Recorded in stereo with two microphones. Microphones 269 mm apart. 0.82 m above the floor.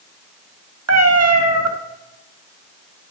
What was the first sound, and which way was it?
A cat meowing, 65° right (ahead or behind).